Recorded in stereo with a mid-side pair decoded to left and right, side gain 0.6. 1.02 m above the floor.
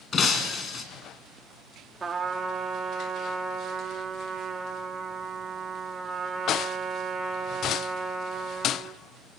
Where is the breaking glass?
35° left, 4 m.